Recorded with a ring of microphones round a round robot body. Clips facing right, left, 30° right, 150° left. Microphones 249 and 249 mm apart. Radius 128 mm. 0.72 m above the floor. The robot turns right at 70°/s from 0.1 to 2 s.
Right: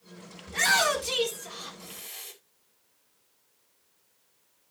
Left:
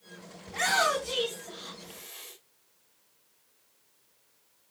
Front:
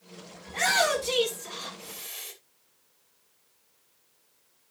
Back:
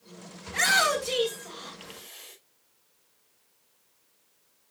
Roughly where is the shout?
Behind right.